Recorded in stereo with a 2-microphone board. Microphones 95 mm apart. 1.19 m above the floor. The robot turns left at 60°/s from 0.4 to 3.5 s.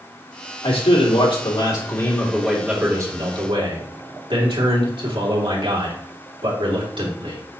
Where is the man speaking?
110° left, 3 m; by 7.4 s 60° right, 3 m.